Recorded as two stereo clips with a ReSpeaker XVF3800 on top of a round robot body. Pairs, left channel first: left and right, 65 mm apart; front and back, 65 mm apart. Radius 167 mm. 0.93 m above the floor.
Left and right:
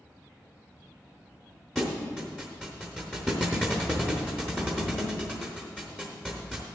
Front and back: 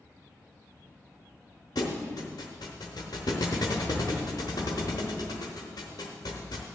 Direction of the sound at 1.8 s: 10° left.